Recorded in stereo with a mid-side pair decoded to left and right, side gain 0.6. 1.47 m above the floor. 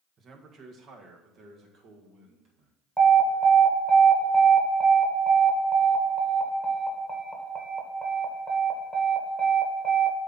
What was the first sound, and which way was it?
A man speaking, 40° right.